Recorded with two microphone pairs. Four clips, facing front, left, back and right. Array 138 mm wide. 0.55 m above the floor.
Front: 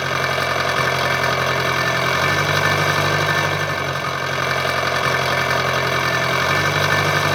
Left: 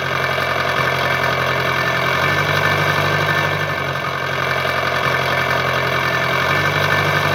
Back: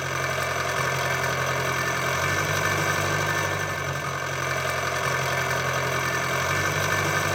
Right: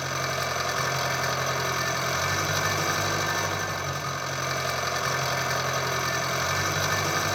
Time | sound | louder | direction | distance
0.0 | an engine running | left 10 dB, front 7 dB | 45° left | 0.7 m